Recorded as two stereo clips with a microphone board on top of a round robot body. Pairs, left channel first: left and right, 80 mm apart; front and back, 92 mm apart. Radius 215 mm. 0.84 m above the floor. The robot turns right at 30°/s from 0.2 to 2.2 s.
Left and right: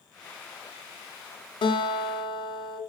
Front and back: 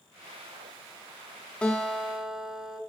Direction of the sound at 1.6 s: 80° left.